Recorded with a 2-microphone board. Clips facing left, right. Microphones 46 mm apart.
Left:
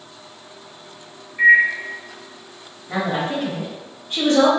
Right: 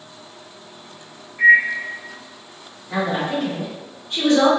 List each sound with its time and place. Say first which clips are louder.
1.4 s a microwave: even; 40° left (ahead or behind), 1.1 m
2.9 s a woman speaking: right 1 dB; 35° left (ahead or behind), 1.6 m